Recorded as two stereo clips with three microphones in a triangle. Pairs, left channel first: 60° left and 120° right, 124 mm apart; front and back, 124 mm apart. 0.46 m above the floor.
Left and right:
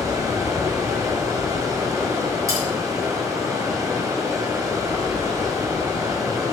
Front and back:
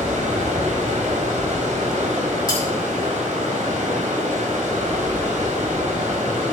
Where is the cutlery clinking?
55° right, 4 m.